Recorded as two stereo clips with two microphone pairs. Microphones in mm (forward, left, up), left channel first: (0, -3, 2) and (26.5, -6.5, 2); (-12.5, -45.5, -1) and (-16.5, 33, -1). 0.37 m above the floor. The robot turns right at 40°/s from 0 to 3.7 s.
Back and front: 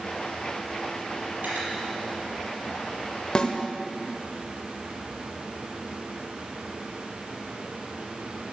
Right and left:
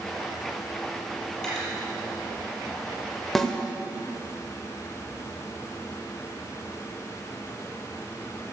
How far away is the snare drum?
About 1.2 m.